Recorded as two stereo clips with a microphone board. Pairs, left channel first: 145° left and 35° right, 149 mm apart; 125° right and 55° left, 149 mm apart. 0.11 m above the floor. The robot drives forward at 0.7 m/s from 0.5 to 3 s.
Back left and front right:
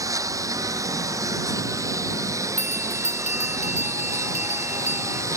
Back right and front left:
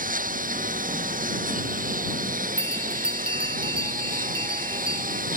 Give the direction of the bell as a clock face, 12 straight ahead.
8 o'clock.